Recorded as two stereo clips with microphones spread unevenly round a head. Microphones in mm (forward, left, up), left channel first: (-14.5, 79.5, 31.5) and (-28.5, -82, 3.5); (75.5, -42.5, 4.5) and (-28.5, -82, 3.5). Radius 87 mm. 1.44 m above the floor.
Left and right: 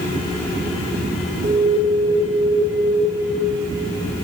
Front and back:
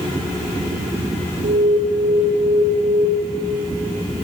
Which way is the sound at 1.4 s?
155° right.